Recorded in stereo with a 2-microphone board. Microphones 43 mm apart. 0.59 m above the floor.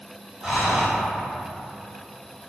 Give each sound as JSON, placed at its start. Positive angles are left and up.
{"t": 0.4, "sound": "breathing", "side_deg": -15, "distance_m": 0.9}